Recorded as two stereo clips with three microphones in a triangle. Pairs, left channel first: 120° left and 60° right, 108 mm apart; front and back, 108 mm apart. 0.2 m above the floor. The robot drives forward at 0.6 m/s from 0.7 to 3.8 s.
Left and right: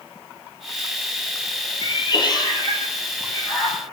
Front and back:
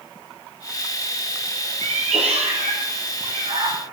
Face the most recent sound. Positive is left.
turn(degrees=175)